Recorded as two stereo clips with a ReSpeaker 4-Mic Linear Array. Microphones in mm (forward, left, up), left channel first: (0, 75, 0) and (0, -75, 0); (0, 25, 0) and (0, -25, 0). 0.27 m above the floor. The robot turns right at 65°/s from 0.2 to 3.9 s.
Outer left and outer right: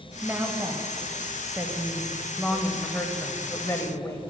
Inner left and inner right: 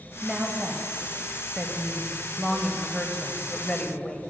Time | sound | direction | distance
0.2 | a woman speaking | 10° right (ahead or behind) | 0.9 m